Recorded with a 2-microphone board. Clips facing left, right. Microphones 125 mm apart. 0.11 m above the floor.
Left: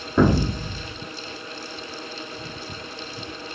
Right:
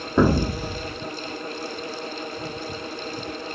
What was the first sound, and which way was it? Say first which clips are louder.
An explosion: even; 10° right (ahead or behind).